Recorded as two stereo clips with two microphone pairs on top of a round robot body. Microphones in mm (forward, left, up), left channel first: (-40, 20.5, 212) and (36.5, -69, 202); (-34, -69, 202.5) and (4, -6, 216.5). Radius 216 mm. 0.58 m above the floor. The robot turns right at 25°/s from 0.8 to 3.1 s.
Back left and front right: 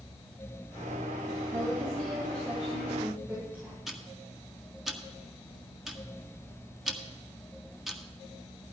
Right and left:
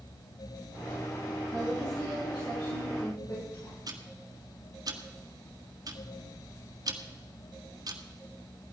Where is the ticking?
35° left, 1.7 m.